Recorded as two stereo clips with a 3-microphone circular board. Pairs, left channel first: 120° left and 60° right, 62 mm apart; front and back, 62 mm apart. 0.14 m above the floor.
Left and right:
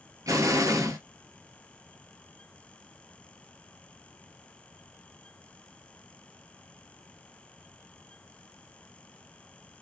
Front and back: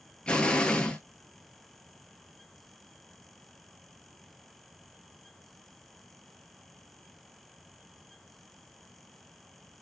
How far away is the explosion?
About 0.7 m.